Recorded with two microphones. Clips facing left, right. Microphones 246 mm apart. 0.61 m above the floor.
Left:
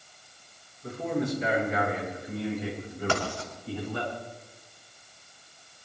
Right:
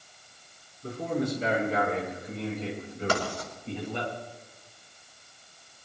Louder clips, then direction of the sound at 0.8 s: Even; 40° right (ahead or behind).